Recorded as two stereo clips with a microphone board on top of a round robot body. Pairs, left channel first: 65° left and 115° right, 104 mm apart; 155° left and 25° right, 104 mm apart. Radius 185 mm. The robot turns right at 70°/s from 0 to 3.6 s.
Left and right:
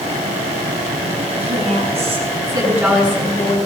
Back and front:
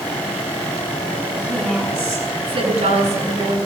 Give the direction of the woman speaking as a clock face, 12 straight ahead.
4 o'clock.